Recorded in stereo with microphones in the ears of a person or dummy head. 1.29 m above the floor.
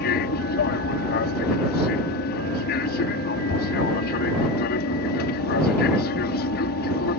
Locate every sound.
0.0 s an aircraft: 55° left (ahead or behind)